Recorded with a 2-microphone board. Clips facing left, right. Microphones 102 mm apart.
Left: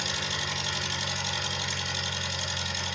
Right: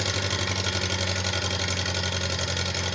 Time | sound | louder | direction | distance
0.0 | an engine running | right 5 dB | 75° right (ahead or behind) | 1.6 m